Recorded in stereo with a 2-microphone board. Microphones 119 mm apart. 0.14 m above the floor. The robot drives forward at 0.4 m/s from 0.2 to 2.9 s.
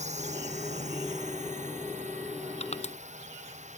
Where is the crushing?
70° left (ahead or behind).